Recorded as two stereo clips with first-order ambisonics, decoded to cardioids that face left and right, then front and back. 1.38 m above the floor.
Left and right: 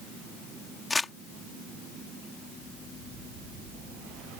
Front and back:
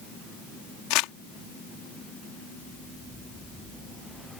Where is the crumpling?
15° left.